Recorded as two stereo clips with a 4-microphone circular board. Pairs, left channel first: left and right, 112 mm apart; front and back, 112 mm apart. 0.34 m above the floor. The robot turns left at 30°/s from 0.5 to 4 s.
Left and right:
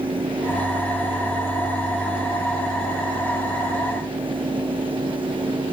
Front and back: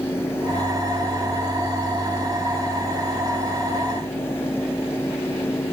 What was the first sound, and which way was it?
Only background noise.